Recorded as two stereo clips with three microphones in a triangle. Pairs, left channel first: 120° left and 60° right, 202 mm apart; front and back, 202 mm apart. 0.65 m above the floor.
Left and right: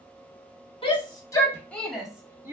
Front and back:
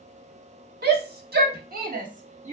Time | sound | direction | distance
0.8 | a shout | 175° left | 1.3 m